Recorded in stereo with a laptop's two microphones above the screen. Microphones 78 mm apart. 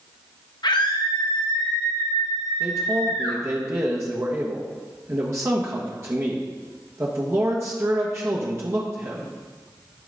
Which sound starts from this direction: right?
A man speaking, at 2.6 s.